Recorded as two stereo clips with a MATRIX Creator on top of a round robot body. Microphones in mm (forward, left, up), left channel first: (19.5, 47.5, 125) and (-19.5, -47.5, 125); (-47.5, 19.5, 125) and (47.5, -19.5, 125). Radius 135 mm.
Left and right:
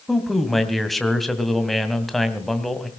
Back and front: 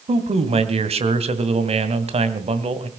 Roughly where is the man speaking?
Ahead.